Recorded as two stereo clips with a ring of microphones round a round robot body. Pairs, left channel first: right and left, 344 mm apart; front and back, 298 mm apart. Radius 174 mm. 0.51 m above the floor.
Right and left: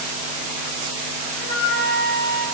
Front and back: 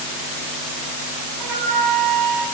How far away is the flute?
About 4.5 m.